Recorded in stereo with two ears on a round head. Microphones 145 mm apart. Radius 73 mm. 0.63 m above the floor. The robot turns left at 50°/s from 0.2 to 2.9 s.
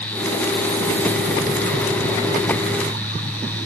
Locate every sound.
Only background noise.